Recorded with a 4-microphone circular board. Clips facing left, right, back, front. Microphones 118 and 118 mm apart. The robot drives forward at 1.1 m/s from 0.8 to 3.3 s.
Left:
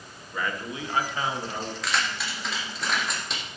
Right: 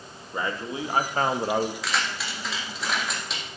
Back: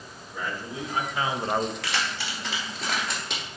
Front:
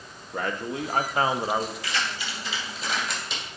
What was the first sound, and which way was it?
A man speaking, 30° right.